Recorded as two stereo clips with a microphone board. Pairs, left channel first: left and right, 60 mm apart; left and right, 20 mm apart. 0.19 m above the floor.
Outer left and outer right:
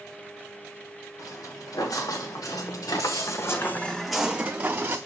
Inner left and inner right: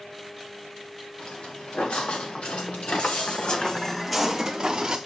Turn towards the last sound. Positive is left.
turn(degrees=-35)  # may be behind; listen again after turning